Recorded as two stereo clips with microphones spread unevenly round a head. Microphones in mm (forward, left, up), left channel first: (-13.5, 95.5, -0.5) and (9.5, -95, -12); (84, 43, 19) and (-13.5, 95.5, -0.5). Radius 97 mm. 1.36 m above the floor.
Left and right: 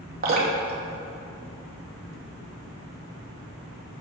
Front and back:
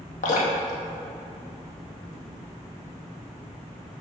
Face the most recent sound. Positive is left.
turn(degrees=-40)